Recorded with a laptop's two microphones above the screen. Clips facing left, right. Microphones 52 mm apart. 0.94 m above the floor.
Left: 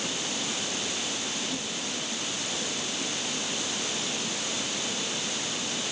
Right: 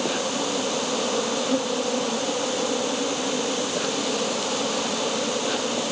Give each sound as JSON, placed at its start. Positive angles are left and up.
{"t": 0.0, "sound": "an insect", "side_deg": -80}